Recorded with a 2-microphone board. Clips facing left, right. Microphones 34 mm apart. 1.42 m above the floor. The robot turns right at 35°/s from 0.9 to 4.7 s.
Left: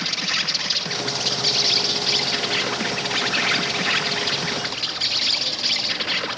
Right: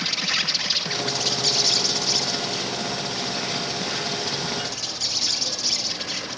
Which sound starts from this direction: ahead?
An insect, at 0.0 s.